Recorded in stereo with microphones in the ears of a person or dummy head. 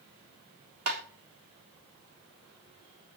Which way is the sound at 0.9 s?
45° right (ahead or behind).